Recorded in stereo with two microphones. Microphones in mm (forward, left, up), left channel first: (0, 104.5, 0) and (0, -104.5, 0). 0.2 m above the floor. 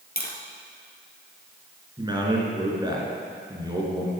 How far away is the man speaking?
About 3 m.